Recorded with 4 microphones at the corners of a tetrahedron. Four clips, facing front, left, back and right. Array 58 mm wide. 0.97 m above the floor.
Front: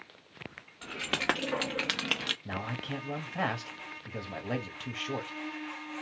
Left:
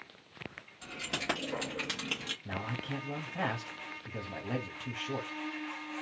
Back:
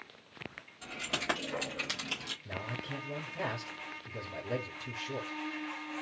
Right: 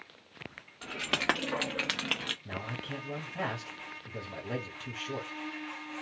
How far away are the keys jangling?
About 1.3 m.